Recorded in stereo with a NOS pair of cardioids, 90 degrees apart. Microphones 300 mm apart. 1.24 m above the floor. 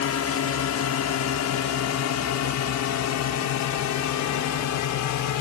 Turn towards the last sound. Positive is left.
turn(degrees=80)